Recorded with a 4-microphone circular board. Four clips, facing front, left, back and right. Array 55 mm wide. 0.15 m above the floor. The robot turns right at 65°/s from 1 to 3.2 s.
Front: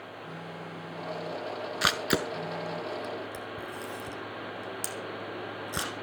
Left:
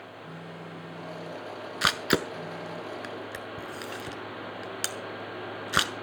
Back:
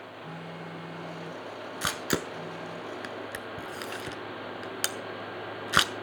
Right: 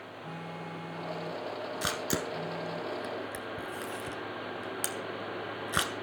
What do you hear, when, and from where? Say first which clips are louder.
0.2 s a phone buzzing: right 3 dB, back 1 dB; 120° right, 5 m; by 2.8 s 5° right, 5 m
1.8 s a camera shutter: left 9 dB, front 3 dB; 60° left, 1.3 m; by 5.9 s 150° left, 1.3 m